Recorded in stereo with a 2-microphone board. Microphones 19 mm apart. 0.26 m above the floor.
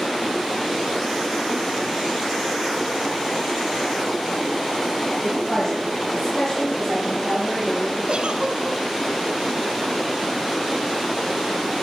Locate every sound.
5.2 s a woman speaking: 20° left (ahead or behind), 7 m; by 8.0 s 5° left (ahead or behind), 6 m
8.1 s a giggle: 60° right (ahead or behind), 1.1 m